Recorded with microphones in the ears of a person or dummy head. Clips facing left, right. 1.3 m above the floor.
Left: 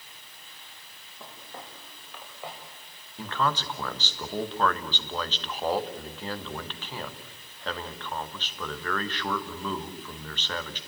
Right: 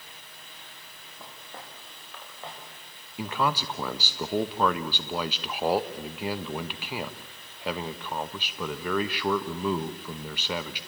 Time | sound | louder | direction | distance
1.2 | footsteps | left 1 dB | 10° right (ahead or behind) | 7 m
3.2 | a man speaking | right 1 dB | 10° right (ahead or behind) | 1.0 m